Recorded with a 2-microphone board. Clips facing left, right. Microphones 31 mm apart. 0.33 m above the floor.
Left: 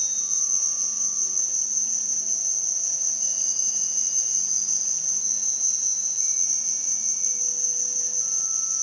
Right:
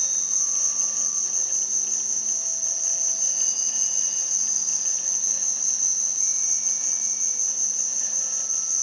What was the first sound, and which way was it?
An insect, 70° right (ahead or behind).